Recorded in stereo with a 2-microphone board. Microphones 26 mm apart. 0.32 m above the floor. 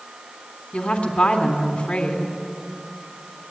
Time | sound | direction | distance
0.7 | a woman speaking | 65° left (ahead or behind) | 3 m